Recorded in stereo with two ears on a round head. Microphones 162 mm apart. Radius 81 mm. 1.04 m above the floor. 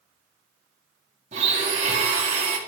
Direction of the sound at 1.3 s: 40° right (ahead or behind).